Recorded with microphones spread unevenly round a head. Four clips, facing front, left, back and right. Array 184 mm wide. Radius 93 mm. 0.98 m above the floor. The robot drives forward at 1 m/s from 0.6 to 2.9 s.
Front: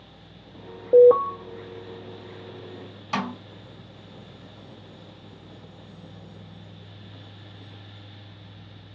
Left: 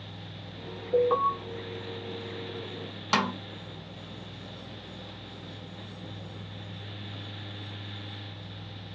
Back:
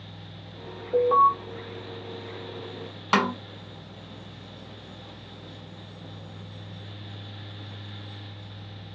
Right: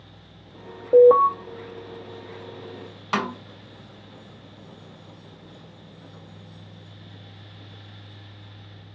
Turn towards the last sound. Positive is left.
turn(degrees=170)